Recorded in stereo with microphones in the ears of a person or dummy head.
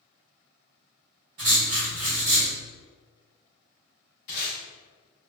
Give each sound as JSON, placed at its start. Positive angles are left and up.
{"t": 1.4, "sound": "writing", "side_deg": -20, "distance_m": 0.9}
{"t": 4.3, "sound": "tape being pulled", "side_deg": 40, "distance_m": 0.8}